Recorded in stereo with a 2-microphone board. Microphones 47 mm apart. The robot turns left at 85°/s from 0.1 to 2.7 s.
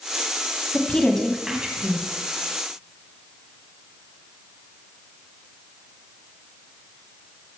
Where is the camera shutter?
I don't hear a camera shutter.